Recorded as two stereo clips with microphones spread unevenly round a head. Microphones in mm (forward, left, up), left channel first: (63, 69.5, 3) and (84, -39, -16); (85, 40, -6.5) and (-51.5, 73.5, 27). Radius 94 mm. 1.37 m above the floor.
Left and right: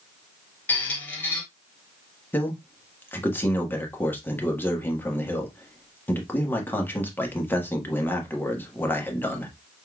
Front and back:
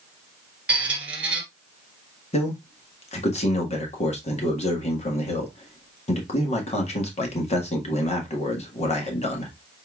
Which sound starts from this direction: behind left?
A squeak, at 0.7 s.